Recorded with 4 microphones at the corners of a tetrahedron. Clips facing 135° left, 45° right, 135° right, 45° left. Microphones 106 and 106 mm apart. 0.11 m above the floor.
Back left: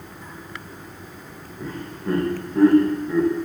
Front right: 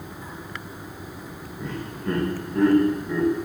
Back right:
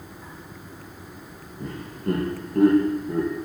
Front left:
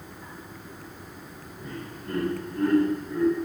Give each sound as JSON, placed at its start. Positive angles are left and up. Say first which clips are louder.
{"t": 1.6, "sound": "laughter", "louder": "even, back right 8 dB", "azimuth_deg": -140, "distance_m": 5.0}